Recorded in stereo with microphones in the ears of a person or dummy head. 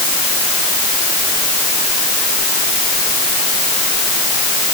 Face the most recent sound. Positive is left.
No sound to turn to.